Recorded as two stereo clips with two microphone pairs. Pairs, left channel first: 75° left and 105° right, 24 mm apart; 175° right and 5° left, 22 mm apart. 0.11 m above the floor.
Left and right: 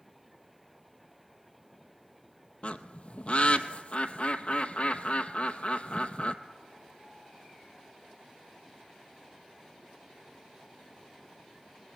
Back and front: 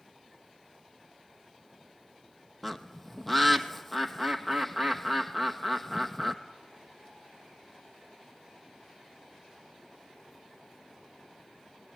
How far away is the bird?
About 0.9 m.